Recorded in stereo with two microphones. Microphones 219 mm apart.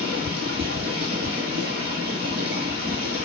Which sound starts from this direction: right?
Running water, at 0.0 s.